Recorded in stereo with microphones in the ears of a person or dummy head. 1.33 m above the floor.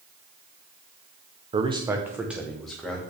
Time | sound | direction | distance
1.5 | a man speaking | 25° right (ahead or behind) | 0.7 m